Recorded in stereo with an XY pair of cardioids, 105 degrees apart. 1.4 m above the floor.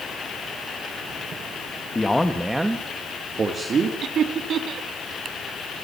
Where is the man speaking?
20° left, 2 m; by 3.9 s 45° right, 3 m.